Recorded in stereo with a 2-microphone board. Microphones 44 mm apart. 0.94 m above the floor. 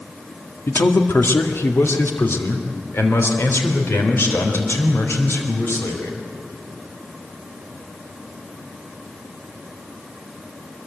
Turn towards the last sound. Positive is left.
turn(degrees=75)  # may be behind; listen again after turning